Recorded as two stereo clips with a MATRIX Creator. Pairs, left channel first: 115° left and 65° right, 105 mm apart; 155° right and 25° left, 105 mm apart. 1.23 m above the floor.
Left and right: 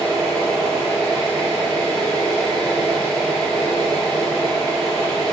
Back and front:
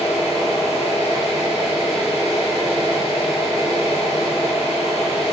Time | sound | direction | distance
0.0 | an engine running | 160° right | 1.3 m